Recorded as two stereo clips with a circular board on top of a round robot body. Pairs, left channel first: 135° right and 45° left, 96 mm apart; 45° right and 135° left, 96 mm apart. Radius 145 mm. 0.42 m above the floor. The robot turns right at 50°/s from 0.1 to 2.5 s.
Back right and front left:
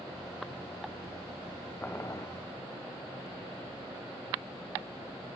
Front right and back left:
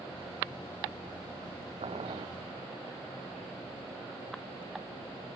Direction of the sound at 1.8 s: 150° left.